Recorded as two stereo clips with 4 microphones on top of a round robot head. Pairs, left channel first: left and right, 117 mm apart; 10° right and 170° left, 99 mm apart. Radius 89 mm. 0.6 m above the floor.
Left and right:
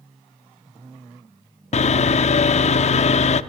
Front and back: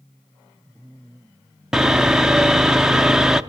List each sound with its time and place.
1.7 s sawing: 90° left, 0.6 m